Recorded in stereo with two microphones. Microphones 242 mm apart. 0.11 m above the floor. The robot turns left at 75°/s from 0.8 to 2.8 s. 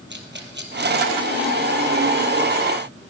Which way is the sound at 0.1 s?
45° right (ahead or behind).